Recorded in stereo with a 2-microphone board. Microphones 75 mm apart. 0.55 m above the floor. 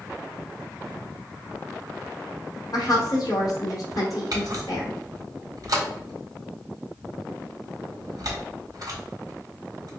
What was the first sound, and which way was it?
A woman speaking, 55° left (ahead or behind).